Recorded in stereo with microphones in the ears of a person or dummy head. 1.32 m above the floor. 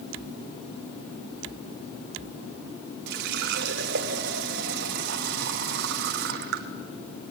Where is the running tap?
50° right (ahead or behind), 0.9 m.